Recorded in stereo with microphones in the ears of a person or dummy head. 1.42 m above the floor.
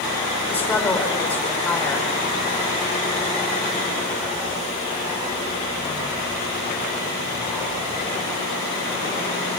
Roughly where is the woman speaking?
Centre.